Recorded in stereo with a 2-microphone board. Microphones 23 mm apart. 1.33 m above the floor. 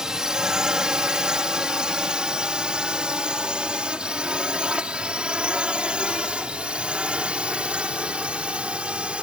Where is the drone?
35° right (ahead or behind); by 9.2 s 70° right (ahead or behind).